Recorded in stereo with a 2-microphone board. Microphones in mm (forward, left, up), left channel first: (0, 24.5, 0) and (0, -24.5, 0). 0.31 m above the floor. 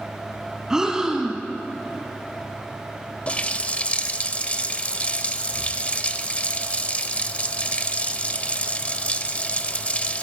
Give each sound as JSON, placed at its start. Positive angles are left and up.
{"t": 0.7, "sound": "breathing", "side_deg": -15, "distance_m": 1.4}
{"t": 3.3, "sound": "a running tap", "side_deg": 30, "distance_m": 0.7}